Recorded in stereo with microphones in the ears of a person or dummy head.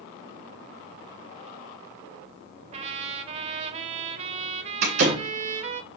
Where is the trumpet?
35° right (ahead or behind), 0.9 m.